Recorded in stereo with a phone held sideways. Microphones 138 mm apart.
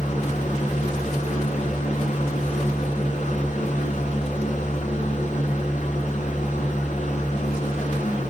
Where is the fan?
65° left (ahead or behind), 4 m.